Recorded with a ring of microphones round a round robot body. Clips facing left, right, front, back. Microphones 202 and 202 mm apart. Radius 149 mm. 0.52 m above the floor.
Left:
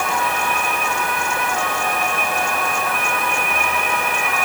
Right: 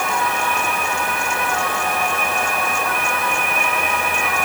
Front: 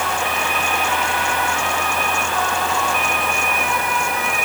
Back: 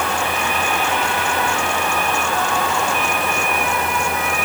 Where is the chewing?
No chewing in this recording.